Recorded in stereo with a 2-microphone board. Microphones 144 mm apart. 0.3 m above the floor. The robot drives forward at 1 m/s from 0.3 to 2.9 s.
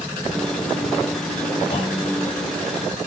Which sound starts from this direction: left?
A clunk, at 1.7 s.